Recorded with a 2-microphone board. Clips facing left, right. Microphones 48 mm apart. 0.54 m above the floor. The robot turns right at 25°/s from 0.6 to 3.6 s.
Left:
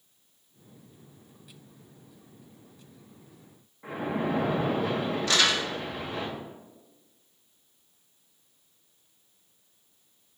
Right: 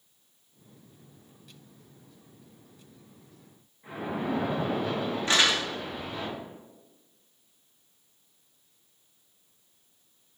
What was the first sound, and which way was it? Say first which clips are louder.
A splash: left 2 dB; 65° left (ahead or behind).